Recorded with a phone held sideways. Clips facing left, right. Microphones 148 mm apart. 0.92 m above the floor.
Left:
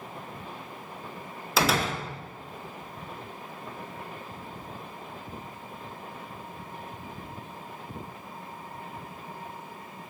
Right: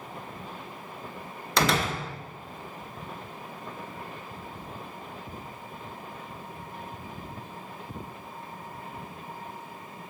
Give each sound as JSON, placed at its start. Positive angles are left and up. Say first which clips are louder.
{"t": 1.6, "sound": "a door slam", "louder": "even", "side_deg": 5, "distance_m": 1.2}